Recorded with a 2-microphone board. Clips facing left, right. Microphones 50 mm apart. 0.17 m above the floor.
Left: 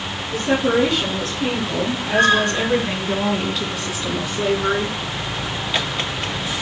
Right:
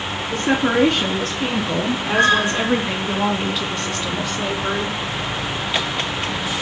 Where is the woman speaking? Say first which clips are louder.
Even; 55° right (ahead or behind), 3 m; by 5.0 s 25° left (ahead or behind), 2.5 m.